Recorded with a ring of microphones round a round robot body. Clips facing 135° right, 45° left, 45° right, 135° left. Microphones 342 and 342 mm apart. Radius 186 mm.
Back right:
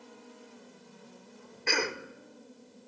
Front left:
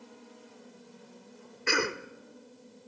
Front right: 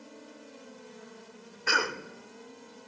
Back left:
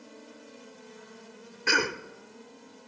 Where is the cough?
105° left, 0.9 m.